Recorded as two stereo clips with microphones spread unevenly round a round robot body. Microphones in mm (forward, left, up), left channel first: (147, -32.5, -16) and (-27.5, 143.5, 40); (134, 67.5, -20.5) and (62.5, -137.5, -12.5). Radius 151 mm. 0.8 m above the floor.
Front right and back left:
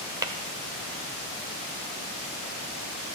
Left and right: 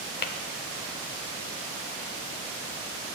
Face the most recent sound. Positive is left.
turn(degrees=80)